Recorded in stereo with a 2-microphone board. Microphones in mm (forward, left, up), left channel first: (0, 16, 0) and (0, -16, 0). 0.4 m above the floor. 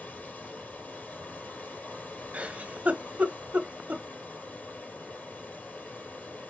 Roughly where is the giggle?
Right.